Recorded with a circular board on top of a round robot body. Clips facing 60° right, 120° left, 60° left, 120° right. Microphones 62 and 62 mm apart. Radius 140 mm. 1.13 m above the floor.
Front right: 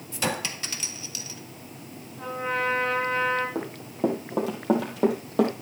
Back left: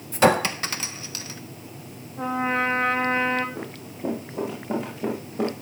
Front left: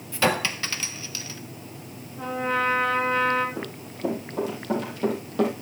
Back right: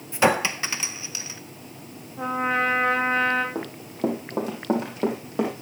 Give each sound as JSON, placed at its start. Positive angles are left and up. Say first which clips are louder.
{"t": 0.1, "sound": "a clink", "louder": "back left 11 dB, back right 3 dB", "azimuth_deg": 170, "distance_m": 0.5}
{"t": 2.2, "sound": "a trumpet", "louder": "back left 4 dB, back right 2 dB", "azimuth_deg": 180, "distance_m": 1.0}
{"t": 3.5, "sound": "running footsteps", "louder": "front right 6 dB, back right 5 dB", "azimuth_deg": -90, "distance_m": 3.5}